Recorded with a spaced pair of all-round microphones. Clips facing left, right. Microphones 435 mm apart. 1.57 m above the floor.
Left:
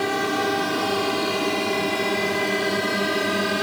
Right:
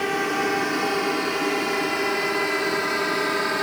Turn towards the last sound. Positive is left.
turn(degrees=50)  # may be behind; listen again after turning